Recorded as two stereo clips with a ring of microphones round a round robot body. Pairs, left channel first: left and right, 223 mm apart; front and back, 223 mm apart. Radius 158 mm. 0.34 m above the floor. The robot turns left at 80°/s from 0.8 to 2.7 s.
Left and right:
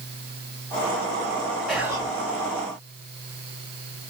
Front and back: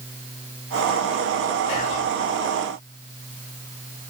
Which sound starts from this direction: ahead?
Whispering, at 1.7 s.